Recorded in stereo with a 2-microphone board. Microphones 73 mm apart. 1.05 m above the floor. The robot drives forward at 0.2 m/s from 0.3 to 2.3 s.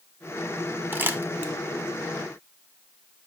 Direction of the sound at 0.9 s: 25° right (ahead or behind).